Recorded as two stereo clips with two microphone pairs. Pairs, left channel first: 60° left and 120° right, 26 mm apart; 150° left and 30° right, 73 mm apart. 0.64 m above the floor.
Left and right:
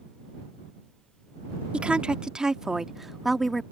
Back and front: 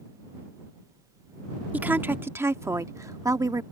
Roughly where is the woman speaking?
Right.